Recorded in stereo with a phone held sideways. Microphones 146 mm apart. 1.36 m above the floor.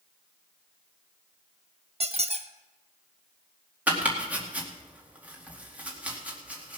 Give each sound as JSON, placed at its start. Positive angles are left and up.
{"t": 2.0, "sound": "a squeak", "side_deg": -45, "distance_m": 0.7}
{"t": 3.9, "sound": "chopping", "side_deg": -10, "distance_m": 2.0}